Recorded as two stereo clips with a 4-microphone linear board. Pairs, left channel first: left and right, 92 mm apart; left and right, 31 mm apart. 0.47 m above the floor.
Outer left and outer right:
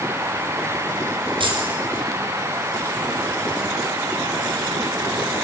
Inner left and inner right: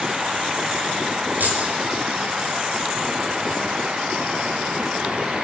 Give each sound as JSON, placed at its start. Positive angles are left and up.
{"t": 1.4, "sound": "keys jangling", "side_deg": -70, "distance_m": 5.5}